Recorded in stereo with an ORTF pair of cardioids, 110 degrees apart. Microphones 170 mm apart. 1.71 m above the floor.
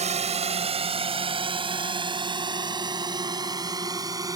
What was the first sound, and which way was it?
A drone, 40° right.